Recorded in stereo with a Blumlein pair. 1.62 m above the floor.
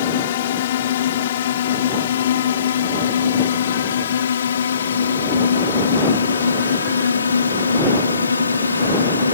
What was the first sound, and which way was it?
A drone, 55° left.